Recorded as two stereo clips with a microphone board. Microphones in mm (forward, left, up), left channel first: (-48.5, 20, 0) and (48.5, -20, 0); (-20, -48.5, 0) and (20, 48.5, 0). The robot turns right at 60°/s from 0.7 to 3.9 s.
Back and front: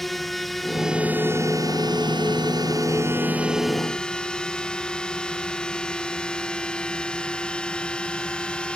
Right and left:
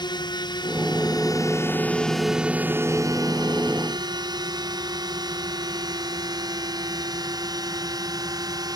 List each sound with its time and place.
0.0 s a drone: 115° right; by 8.8 s 80° left